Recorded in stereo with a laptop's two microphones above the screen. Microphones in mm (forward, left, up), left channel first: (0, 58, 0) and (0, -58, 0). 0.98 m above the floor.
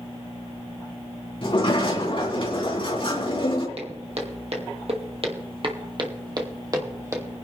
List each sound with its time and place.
1.4 s a sliding door: 50° left (ahead or behind), 3 m
3.8 s footsteps: 65° right (ahead or behind), 2 m; by 7.2 s 25° right (ahead or behind), 2.5 m